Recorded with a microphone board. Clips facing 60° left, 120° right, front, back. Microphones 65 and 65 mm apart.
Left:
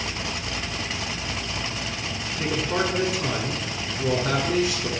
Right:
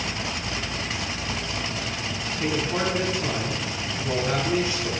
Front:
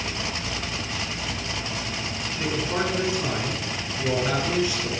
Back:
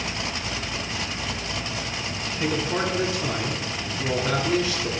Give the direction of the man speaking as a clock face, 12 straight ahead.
10 o'clock.